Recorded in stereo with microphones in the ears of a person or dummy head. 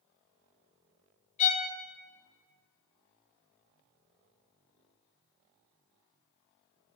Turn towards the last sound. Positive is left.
turn(degrees=35)  # may be behind; listen again after turning